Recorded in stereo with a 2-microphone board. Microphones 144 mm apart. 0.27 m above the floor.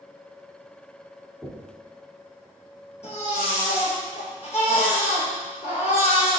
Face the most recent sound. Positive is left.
turn(degrees=50)  # may be behind; listen again after turning